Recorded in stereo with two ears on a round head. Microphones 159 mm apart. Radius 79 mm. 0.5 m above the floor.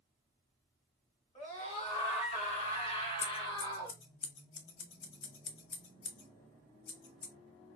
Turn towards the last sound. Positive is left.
turn(degrees=80)